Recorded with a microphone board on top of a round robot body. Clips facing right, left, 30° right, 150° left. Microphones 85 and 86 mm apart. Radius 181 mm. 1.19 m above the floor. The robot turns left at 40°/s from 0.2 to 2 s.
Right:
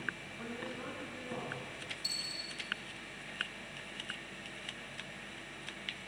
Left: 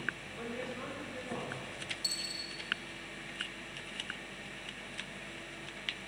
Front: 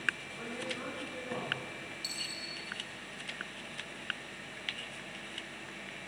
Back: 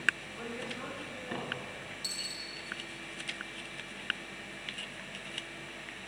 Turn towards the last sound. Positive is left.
turn(degrees=95)